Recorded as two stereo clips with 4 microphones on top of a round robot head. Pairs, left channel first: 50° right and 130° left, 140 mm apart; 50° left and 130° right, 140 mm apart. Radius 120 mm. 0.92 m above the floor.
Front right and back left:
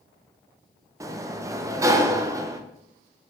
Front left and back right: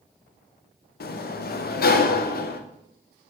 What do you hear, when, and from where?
1.0 s a sliding door: 60° left, 0.6 m